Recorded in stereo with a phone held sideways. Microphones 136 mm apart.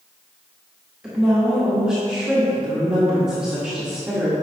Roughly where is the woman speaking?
Centre.